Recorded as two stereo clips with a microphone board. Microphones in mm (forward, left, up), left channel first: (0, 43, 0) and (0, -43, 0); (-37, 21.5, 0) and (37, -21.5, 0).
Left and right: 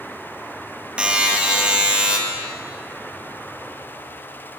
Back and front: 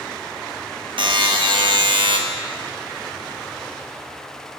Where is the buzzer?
10° right, 1.1 m.